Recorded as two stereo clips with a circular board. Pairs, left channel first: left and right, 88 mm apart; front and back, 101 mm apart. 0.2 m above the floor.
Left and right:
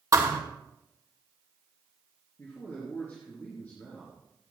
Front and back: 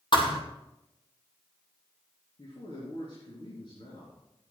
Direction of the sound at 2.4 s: 20° left.